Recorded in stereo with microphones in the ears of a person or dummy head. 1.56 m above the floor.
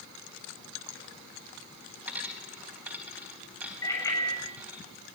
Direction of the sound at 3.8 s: 20° left (ahead or behind).